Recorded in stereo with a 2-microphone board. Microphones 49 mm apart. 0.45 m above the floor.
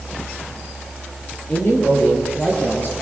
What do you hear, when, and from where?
1.5 s a man speaking: 45° left (ahead or behind), 9 m; by 2.9 s 40° left (ahead or behind), 9 m